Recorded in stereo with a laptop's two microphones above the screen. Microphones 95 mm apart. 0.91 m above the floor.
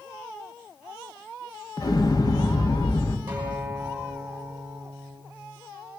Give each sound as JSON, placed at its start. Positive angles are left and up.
{"t": 1.8, "sound": "an explosion", "side_deg": 45, "distance_m": 1.3}
{"t": 3.3, "sound": "a guitar", "side_deg": -20, "distance_m": 6.5}